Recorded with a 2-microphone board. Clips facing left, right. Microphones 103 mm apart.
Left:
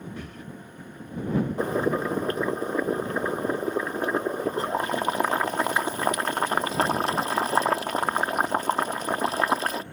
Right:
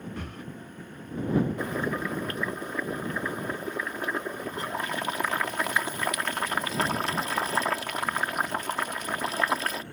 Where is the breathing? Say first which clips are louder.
Even; 60° right (ahead or behind).